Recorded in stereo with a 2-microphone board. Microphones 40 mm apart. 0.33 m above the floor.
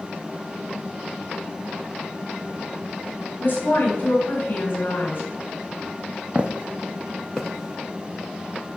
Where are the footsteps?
35° right (ahead or behind), 0.7 m; by 8.8 s 35° left (ahead or behind), 1.4 m.